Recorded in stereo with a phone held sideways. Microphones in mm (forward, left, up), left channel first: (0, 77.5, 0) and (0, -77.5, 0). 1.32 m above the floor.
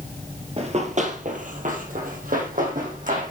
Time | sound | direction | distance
0.6 | running footsteps | 40° right (ahead or behind) | 1.9 m